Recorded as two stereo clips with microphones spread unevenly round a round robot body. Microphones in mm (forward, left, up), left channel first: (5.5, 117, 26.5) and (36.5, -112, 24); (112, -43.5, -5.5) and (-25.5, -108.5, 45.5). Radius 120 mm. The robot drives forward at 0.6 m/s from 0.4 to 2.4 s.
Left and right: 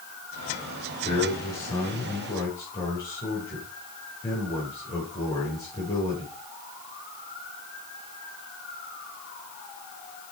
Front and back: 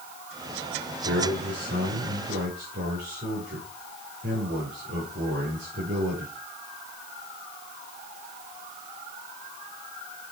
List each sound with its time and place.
1.1 s a man speaking: 170° left, 5.5 m; by 6.3 s 175° left, 6.5 m